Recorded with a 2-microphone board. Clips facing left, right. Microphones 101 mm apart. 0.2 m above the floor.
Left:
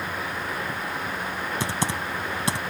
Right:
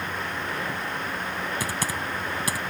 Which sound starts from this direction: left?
Typing on a keyboard, at 1.6 s.